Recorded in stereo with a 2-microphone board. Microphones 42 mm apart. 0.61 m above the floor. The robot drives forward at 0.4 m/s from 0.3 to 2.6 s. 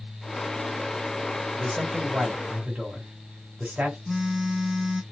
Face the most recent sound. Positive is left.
turn(degrees=-5)  # may be behind; listen again after turning